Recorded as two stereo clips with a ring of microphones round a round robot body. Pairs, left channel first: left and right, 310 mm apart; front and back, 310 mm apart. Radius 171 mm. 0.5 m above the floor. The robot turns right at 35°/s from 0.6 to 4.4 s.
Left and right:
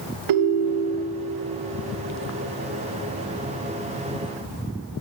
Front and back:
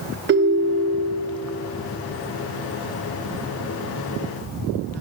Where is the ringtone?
125° right, 0.6 m; by 1.3 s 100° right, 0.6 m.